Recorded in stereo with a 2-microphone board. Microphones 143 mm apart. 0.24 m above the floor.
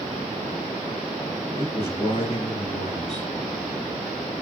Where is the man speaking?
45° left (ahead or behind), 8 m.